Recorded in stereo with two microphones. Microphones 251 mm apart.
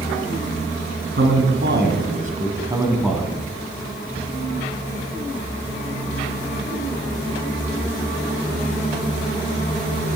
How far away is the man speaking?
About 2 m.